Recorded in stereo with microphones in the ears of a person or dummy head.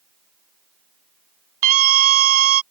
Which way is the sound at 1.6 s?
45° right (ahead or behind).